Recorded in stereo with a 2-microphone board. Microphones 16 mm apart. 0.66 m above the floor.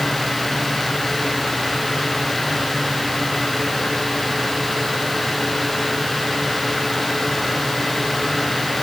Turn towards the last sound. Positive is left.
No sound to turn to.